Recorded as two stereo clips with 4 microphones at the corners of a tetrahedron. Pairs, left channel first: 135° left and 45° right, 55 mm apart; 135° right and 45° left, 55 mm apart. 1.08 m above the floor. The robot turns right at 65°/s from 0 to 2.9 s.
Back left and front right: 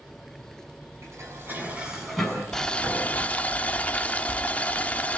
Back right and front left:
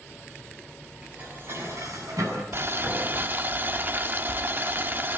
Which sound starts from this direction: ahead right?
Dishes clattering, at 1.0 s.